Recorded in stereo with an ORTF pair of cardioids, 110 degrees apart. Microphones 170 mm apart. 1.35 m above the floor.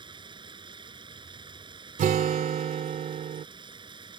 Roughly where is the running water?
Ahead right.